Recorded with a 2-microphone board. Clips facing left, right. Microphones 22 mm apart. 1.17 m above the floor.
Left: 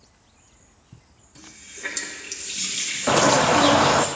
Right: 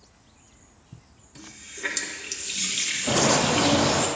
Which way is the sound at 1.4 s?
15° right (ahead or behind).